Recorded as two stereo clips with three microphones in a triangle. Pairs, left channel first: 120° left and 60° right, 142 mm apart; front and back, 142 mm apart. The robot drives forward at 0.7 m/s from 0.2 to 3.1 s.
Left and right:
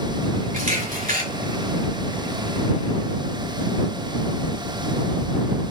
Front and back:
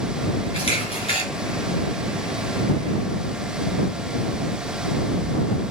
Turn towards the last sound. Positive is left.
turn(degrees=-65)